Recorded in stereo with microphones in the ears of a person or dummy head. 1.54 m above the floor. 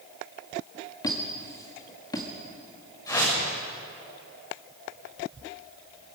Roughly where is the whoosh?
Left.